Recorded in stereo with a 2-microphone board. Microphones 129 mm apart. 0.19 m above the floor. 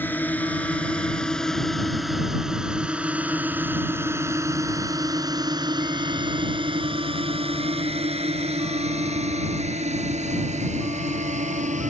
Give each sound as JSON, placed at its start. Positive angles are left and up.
{"t": 0.0, "sound": "a drone", "side_deg": 15}